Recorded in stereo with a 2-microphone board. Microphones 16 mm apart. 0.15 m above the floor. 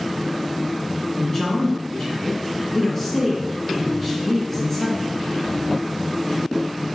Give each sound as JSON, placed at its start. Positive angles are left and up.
{"t": 1.2, "sound": "a man speaking", "side_deg": 25, "distance_m": 2.5}